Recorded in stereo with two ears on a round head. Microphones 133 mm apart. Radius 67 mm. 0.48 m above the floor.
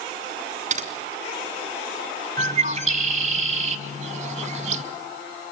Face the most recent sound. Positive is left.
turn(degrees=-45)  # may be behind; listen again after turning